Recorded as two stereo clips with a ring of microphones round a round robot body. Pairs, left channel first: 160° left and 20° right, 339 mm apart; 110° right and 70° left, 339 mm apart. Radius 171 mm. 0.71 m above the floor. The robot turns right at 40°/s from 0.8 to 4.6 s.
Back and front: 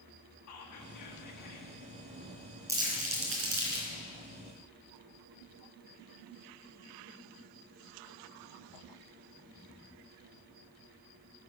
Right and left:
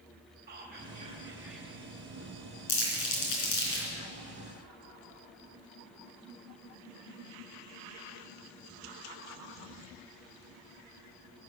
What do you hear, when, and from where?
0.5 s whispering: 125° left, 1.1 m; by 1.7 s 165° left, 1.1 m
2.7 s crumpling: 105° right, 4 m; by 3.9 s 55° right, 4 m